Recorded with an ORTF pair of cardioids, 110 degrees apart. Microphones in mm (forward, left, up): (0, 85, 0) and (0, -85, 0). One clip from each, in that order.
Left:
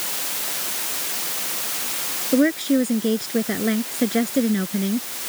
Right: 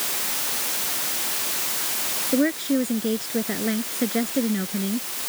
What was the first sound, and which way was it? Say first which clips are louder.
A woman speaking: left 4 dB; 25° left.